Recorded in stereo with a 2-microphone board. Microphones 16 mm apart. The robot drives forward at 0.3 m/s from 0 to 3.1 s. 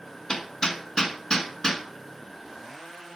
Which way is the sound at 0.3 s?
45° left (ahead or behind).